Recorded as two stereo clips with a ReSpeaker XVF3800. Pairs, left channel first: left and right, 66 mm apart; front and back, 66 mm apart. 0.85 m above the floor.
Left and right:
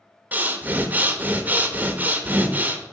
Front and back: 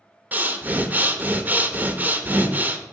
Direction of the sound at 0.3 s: 130° right.